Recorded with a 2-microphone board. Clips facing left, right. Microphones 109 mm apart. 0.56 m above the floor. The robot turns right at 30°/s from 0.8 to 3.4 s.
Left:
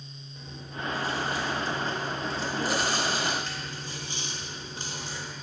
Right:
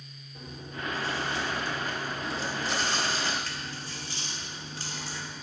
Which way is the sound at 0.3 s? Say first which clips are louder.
Even; 50° right.